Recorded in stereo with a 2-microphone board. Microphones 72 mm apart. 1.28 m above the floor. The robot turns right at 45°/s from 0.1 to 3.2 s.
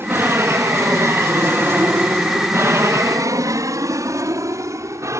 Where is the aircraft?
35° right (ahead or behind); by 5.2 s 40° right (ahead or behind).